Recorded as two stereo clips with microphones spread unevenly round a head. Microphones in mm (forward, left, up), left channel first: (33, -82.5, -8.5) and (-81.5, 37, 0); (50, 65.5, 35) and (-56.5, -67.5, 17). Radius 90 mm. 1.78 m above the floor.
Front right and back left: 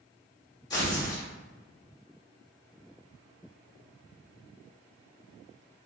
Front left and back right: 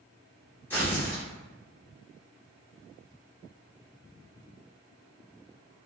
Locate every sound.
0.7 s tearing paper: straight ahead, 1.2 m